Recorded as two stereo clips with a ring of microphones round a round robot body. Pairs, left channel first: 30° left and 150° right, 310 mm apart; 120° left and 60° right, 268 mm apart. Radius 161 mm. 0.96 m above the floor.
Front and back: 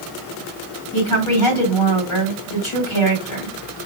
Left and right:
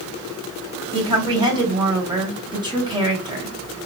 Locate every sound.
0.9 s a woman speaking: 15° left, 2.5 m